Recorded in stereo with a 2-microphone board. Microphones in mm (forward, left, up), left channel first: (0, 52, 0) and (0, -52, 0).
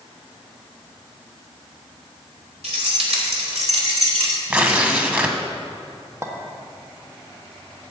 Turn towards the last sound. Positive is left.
turn(degrees=-30)  # may be behind; listen again after turning